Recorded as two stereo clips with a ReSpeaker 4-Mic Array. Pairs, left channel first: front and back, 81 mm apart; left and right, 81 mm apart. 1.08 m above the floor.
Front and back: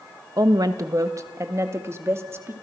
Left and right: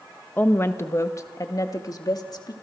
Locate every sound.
0.4 s a woman speaking: 155° left, 1.4 m; by 2.5 s 125° left, 3 m